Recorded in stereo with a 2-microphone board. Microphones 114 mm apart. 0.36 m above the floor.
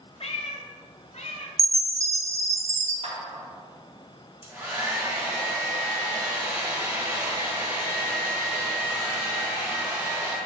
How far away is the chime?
About 0.9 m.